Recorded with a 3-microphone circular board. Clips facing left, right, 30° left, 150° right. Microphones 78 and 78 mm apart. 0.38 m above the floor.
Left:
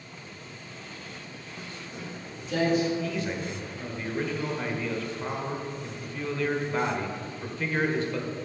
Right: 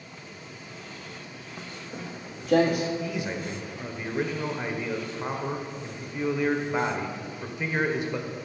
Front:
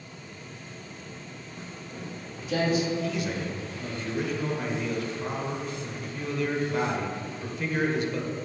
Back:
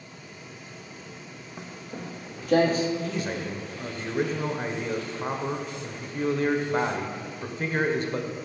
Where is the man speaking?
155° right, 1.0 m.